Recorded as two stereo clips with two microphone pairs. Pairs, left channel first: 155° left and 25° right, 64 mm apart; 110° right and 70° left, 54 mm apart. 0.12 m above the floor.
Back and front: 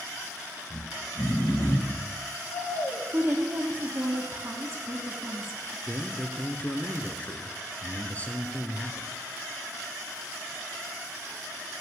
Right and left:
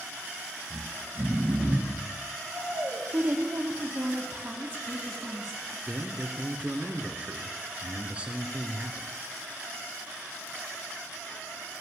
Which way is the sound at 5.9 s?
110° left.